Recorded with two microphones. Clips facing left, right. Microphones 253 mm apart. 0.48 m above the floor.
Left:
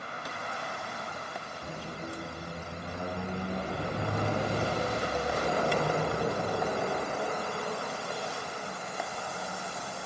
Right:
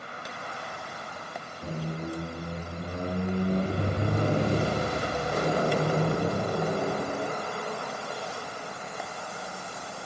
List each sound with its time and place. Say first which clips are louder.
1.6 s a squeak: right 8 dB; 40° right (ahead or behind), 0.9 m